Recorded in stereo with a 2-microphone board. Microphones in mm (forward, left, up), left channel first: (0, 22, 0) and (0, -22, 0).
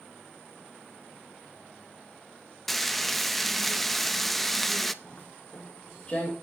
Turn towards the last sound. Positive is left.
turn(degrees=25)  # may be behind; listen again after turning